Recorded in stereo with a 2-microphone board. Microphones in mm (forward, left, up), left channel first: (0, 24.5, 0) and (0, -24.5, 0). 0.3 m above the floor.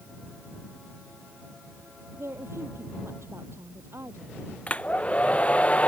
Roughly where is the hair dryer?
Left.